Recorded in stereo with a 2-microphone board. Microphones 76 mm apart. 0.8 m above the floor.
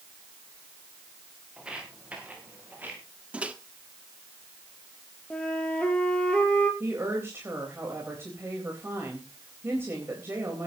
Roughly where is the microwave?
Centre.